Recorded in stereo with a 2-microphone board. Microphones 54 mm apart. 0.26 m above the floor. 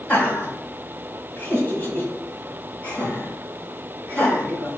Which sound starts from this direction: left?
Laughter, at 0.1 s.